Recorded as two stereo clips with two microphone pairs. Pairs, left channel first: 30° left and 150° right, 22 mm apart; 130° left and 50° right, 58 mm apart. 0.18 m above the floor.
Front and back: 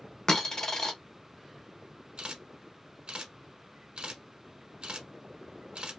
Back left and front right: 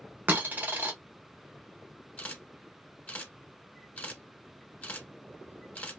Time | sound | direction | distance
0.3 | a dropped coin | 15° right | 0.8 m
2.2 | a camera shutter | 170° right | 0.8 m